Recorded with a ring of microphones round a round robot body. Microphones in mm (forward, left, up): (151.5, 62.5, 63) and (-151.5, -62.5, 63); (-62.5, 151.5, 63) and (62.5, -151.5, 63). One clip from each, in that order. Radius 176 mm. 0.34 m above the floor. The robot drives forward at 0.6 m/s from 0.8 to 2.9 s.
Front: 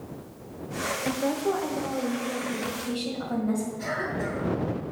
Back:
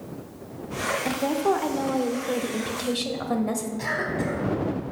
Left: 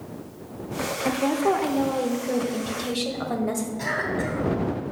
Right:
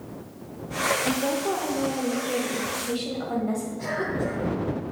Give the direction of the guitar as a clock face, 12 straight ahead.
I don't hear a guitar.